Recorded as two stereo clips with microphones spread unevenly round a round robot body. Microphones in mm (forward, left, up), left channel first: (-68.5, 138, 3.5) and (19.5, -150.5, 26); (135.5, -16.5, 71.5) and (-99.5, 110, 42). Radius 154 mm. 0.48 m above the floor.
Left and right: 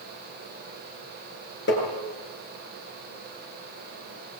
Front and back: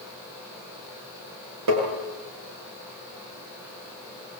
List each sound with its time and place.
1.7 s tapping: 160° left, 9 m